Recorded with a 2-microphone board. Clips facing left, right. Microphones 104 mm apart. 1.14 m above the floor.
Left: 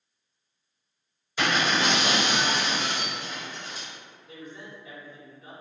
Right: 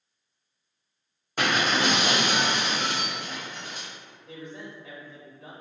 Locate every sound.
1.4 s breaking glass: 55° right (ahead or behind), 1.5 m
4.3 s a man speaking: 80° right, 1.5 m